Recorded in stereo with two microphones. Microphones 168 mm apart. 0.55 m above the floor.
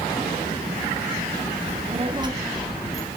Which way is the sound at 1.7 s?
40° right (ahead or behind).